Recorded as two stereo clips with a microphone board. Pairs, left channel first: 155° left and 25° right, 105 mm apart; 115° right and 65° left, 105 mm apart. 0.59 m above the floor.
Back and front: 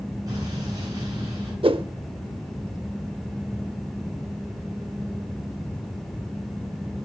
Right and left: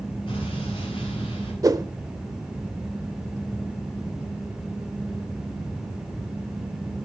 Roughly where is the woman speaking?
I don't hear a woman speaking.